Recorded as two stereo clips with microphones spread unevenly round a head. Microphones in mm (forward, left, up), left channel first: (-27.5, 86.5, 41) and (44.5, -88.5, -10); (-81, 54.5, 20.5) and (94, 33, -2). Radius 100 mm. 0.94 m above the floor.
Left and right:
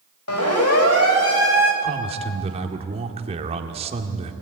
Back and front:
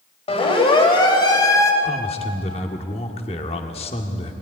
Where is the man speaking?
125° right, 1.9 m.